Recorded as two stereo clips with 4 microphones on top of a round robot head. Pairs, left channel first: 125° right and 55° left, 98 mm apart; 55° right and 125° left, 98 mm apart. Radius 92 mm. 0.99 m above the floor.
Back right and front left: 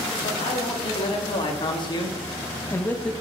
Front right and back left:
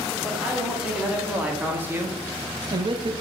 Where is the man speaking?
145° right, 2 m; by 3.1 s 150° left, 0.8 m.